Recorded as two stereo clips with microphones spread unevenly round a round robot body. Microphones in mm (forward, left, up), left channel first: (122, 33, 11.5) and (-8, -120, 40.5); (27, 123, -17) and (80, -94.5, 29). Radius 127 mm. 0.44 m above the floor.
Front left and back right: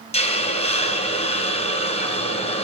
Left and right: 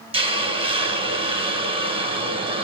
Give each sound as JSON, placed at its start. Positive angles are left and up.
{"t": 0.1, "sound": "a hiss", "azimuth_deg": -5, "distance_m": 3.5}